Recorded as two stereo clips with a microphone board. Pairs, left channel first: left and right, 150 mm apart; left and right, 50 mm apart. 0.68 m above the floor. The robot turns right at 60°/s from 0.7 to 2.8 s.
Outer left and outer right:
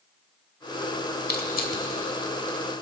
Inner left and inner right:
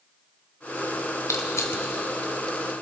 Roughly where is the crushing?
Left.